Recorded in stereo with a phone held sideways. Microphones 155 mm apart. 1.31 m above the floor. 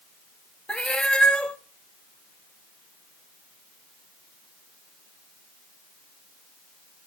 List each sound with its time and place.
0.7 s a cat meowing: 5° left (ahead or behind), 0.8 m